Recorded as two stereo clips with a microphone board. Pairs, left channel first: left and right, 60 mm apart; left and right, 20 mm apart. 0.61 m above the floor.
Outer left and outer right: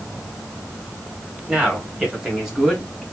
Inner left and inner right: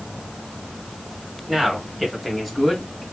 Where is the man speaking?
20° right (ahead or behind), 2 m; by 3.0 s centre (ahead or behind), 1.6 m.